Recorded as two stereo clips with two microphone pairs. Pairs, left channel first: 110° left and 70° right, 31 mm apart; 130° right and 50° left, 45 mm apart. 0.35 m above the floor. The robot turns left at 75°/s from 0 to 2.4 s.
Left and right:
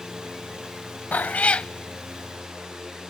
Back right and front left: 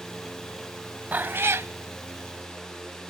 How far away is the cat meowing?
About 0.5 m.